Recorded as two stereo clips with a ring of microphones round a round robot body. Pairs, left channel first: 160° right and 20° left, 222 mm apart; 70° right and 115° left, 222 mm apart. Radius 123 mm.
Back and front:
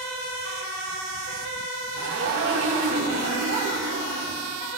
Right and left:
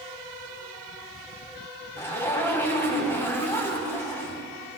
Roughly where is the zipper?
Ahead.